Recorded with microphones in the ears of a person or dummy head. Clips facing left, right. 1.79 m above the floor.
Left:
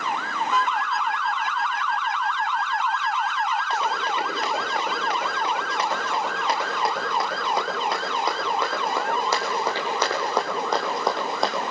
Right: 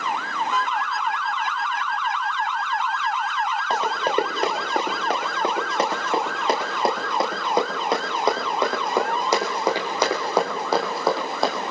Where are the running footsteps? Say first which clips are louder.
Right 4 dB; 30° right (ahead or behind), 8 m; by 11.6 s 5° left (ahead or behind), 4.5 m.